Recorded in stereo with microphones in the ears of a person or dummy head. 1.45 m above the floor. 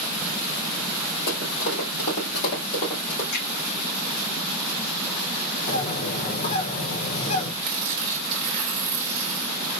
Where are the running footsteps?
50° left (ahead or behind), 2 m; by 3.2 s 40° left (ahead or behind), 2.5 m.